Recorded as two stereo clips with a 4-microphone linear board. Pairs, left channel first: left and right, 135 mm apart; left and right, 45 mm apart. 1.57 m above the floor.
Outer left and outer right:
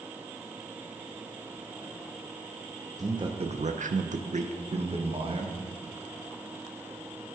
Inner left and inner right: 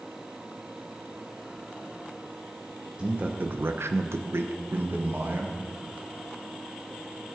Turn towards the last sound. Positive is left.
turn(degrees=-40)  # may be behind; listen again after turning